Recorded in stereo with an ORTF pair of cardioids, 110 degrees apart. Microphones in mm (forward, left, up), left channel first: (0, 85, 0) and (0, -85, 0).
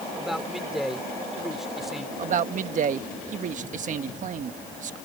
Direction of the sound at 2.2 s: 50° right.